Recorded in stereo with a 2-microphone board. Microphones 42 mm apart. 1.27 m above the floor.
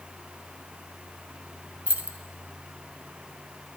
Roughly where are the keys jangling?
Right.